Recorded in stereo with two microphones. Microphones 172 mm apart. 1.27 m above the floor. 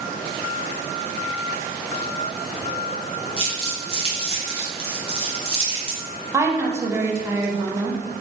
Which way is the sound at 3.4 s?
35° left (ahead or behind).